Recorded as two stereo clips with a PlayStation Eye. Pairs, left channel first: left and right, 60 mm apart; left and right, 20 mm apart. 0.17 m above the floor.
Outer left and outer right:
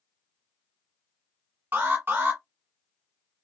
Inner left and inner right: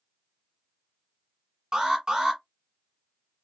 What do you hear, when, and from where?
1.7 s an alarm: 35° right (ahead or behind), 1.4 m